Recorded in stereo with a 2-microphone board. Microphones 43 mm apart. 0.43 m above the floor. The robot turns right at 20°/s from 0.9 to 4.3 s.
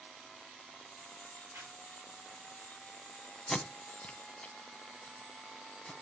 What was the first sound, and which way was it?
A zipper, 65° right (ahead or behind).